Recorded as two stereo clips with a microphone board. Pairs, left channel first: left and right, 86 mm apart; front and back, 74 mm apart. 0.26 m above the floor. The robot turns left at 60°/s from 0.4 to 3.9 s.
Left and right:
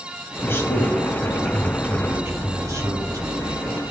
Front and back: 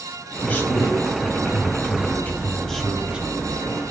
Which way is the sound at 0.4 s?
55° left.